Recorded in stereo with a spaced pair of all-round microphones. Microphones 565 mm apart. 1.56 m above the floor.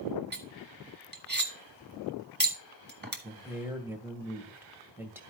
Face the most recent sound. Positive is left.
turn(degrees=-5)  # may be behind; listen again after turning